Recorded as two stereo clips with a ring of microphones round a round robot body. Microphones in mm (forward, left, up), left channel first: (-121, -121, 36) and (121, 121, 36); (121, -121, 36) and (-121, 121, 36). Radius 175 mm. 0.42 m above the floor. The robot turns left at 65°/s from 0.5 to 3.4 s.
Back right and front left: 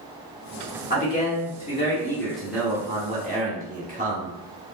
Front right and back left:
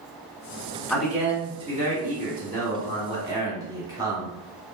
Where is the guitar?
No guitar in this recording.